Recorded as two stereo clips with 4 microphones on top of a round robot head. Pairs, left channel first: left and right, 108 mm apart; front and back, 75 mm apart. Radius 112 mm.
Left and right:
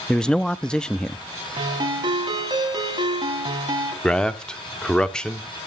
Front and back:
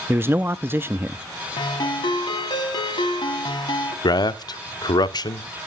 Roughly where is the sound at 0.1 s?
Behind.